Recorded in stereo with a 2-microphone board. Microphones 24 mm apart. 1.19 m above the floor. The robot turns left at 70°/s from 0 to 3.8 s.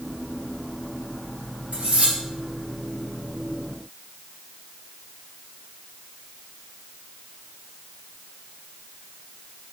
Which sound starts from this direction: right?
Cutlery clinking, at 1.7 s.